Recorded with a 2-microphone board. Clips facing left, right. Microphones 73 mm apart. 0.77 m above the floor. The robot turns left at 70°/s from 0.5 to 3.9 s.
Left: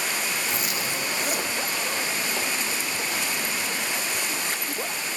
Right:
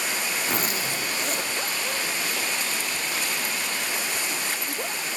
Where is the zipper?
130° right, 1.1 m; by 1.5 s 160° left, 1.1 m.